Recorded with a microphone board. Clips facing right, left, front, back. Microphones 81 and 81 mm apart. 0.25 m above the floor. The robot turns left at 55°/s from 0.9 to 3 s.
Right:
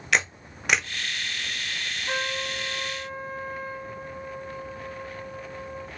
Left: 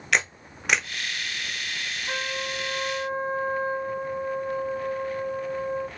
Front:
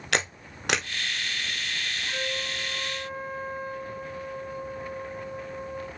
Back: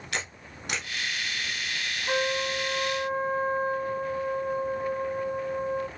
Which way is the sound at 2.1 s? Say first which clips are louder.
Right 1 dB, back 9 dB; 165° right.